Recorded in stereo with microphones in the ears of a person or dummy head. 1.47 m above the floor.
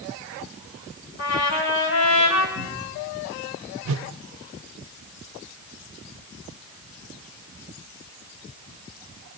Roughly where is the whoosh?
Right.